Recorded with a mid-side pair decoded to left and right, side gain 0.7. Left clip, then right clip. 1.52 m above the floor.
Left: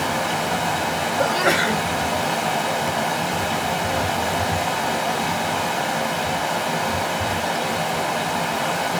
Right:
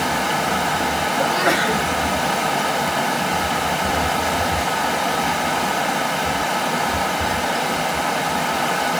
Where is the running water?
10° right, 1.5 m.